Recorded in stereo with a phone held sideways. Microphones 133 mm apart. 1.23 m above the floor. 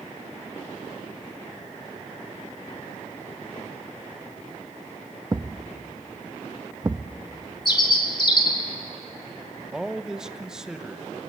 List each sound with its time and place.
5.3 s a thud: 25° right (ahead or behind), 0.5 m
7.7 s a bird: 35° left (ahead or behind), 1.7 m
9.7 s a man speaking: 5° right (ahead or behind), 0.9 m